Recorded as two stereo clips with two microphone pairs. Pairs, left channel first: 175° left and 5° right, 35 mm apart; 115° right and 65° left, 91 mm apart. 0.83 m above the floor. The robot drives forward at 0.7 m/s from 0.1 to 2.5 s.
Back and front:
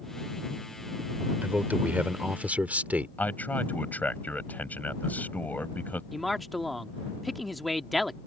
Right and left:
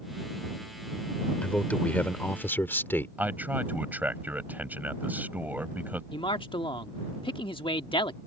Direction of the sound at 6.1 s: 100° right.